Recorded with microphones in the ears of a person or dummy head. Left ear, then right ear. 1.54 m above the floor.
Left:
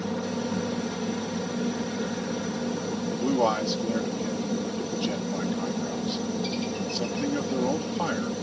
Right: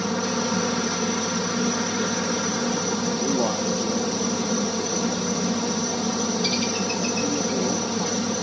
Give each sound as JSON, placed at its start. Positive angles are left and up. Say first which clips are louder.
{"t": 0.0, "sound": "a helicopter", "louder": "right 6 dB", "side_deg": -50}
{"t": 3.1, "sound": "a man speaking", "louder": "left 3 dB", "side_deg": 60}